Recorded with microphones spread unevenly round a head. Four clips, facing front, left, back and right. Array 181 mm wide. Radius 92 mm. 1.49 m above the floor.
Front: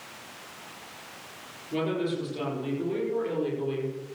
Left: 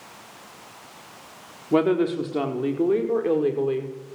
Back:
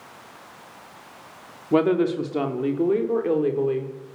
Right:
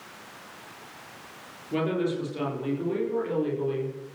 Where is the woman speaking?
140° left, 4 m; by 3.9 s 130° left, 5 m.